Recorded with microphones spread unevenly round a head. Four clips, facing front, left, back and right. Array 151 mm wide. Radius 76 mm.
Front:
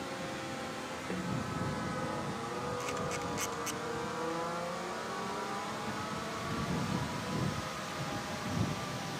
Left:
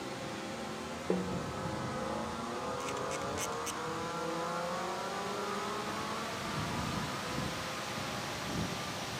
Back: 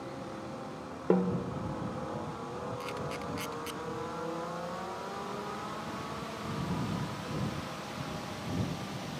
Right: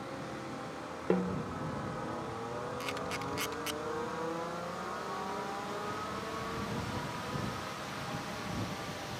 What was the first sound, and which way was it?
A snare drum, 165° right.